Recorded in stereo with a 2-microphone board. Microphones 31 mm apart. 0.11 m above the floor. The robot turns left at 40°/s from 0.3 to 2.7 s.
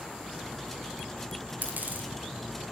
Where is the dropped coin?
75° right (ahead or behind), 5 m; by 2.1 s 55° right (ahead or behind), 5 m.